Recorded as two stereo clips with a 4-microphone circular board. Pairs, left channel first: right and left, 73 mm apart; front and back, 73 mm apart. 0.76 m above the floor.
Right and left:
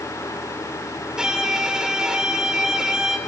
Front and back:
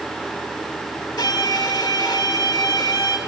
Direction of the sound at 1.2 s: 10° left.